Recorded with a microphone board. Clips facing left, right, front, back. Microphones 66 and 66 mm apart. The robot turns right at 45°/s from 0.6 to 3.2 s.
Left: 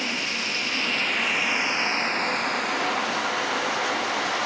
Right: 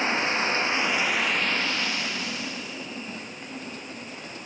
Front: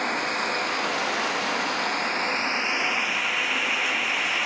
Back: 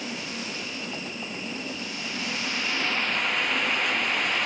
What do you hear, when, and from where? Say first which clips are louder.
0.0 s running water: right 4 dB, front 9 dB; 30° right; by 4.5 s 85° left